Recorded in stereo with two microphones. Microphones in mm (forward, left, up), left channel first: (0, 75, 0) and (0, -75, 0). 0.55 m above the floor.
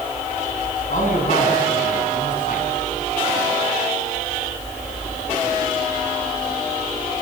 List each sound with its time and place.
0.9 s a man speaking: 60° left (ahead or behind), 6 m